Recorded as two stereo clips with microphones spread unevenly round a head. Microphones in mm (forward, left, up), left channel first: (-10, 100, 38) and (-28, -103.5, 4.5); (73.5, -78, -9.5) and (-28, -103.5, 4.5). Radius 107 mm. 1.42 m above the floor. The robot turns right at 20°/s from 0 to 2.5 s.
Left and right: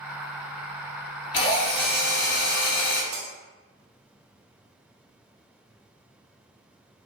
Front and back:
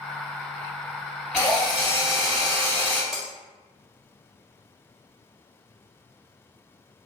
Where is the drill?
100° left, 1.5 m; by 3.0 s 125° left, 1.5 m.